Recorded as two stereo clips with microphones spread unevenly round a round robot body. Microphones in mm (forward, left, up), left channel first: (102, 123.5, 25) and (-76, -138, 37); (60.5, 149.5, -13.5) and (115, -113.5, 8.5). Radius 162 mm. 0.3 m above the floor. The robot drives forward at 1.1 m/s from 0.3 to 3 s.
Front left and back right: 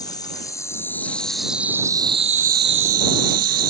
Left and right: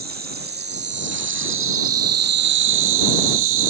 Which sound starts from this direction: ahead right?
An insect, at 0.0 s.